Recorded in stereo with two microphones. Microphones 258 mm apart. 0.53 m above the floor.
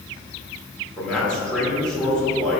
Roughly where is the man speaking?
Centre.